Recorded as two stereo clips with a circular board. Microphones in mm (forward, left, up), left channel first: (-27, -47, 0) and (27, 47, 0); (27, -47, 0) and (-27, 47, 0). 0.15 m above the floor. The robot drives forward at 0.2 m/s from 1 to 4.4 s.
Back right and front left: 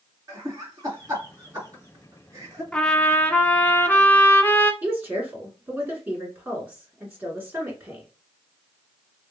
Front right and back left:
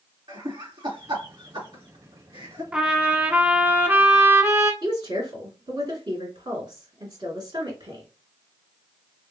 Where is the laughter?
100° left, 2.5 m; by 2.6 s 110° left, 2.5 m.